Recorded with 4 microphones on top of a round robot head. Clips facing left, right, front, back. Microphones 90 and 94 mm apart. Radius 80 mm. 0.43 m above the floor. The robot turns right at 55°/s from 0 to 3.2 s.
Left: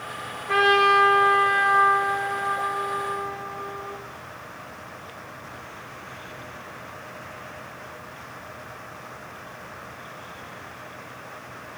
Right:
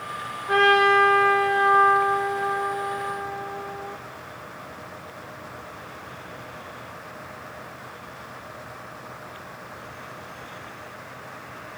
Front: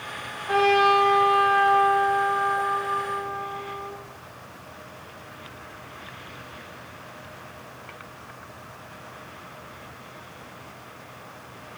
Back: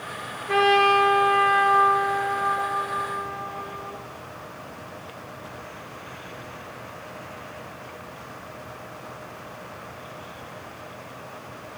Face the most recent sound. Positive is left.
turn(degrees=105)